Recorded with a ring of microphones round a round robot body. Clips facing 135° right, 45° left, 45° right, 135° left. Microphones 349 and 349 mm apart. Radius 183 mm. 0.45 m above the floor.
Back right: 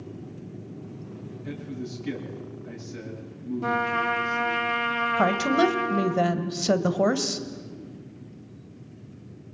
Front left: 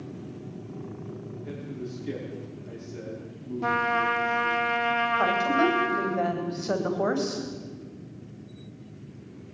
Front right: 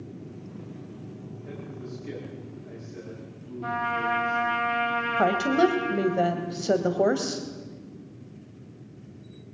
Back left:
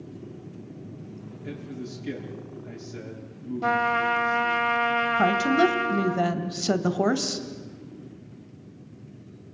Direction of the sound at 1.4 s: 170° left.